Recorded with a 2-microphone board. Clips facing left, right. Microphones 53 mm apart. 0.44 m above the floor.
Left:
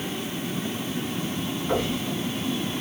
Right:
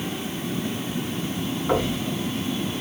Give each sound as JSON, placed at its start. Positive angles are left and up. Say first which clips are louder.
{"t": 1.7, "sound": "knocking", "louder": "right 3 dB", "side_deg": -35, "distance_m": 4.0}